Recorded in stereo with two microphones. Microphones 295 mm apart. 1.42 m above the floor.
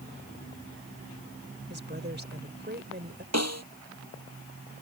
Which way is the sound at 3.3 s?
60° right (ahead or behind).